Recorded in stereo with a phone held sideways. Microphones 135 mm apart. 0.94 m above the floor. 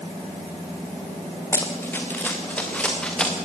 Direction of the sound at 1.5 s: 20° left (ahead or behind).